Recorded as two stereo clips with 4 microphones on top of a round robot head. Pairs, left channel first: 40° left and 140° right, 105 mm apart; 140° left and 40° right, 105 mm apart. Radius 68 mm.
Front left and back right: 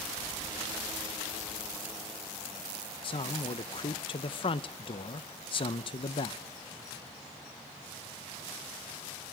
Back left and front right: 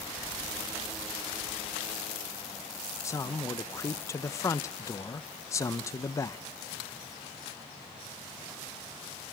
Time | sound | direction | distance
3.0 | a man speaking | 80° left | 0.7 m